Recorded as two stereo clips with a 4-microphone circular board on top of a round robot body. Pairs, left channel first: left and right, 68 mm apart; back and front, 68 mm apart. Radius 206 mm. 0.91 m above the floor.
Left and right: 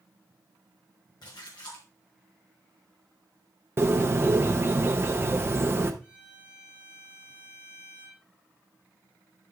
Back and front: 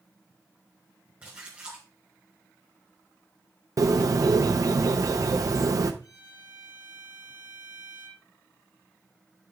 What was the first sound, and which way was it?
A splash, 70° left.